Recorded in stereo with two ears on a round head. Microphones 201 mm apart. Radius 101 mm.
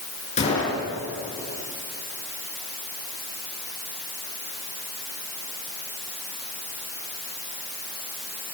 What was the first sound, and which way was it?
A gunshot, 30° left (ahead or behind).